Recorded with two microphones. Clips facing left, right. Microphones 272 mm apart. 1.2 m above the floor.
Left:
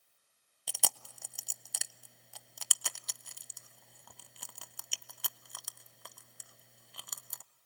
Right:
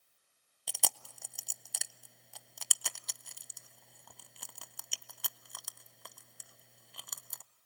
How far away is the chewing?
About 0.5 m.